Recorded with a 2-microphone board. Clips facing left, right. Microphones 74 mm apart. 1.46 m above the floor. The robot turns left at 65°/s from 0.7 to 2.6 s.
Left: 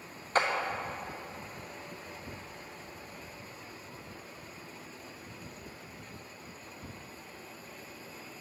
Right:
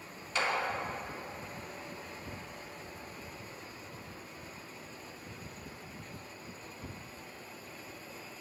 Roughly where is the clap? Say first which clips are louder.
Left 4 dB; left.